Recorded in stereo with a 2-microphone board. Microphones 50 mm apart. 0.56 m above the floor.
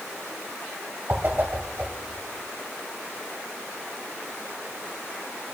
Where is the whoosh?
35° right (ahead or behind), 1.8 m.